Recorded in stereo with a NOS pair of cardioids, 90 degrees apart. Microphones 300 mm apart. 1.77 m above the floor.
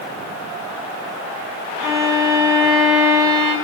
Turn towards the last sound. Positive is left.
turn(degrees=-10)